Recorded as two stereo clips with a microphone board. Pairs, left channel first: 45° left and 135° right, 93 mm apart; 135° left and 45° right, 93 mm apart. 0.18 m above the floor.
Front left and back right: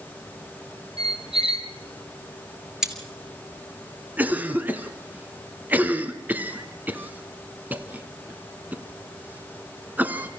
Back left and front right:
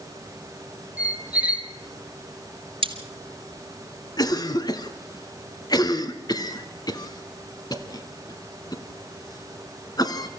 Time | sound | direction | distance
1.0 | a squeak | 120° right | 1.3 m
2.8 | cutlery clinking | 50° right | 1.6 m
4.2 | a cough | 160° left | 1.4 m